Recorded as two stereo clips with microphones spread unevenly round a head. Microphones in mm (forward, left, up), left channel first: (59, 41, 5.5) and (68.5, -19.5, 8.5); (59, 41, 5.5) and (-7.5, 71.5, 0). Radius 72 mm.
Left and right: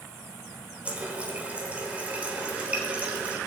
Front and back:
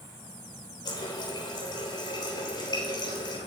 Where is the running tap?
15° right, 3 m.